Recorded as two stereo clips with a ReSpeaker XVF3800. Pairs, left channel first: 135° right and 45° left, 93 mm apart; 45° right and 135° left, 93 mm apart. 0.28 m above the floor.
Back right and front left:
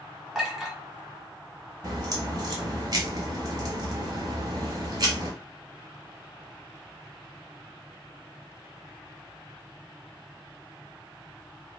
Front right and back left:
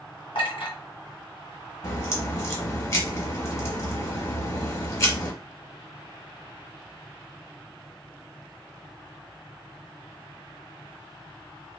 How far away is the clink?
About 1.5 m.